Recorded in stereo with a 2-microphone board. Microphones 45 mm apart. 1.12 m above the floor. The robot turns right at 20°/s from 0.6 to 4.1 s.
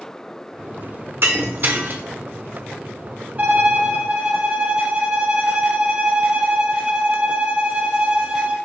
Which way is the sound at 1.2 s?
60° right (ahead or behind).